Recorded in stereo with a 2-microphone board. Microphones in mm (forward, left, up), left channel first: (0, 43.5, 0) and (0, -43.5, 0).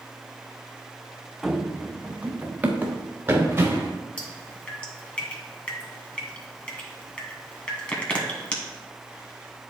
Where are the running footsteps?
5° right (ahead or behind), 0.6 m; by 4.0 s 25° right (ahead or behind), 1.8 m.